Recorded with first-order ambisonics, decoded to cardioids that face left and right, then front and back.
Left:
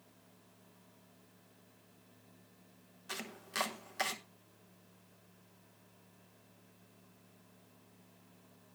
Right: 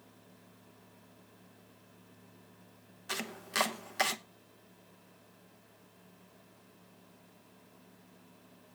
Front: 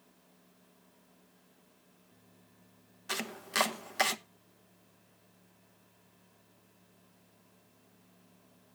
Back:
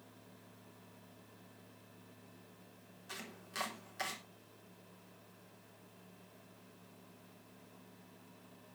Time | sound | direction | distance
3.1 | chopping | 25° right | 0.8 m